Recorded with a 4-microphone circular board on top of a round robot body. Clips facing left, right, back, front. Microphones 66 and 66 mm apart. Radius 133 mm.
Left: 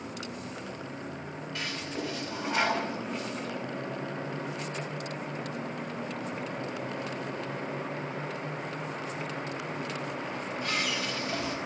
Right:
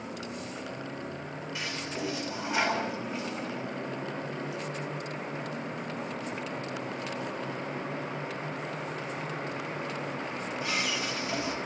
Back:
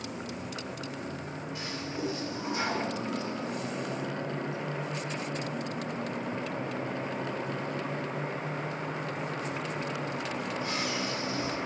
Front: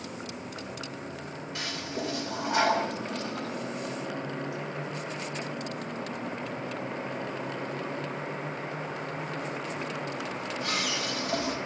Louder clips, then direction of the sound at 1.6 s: Left 1 dB, front 2 dB; 10° right.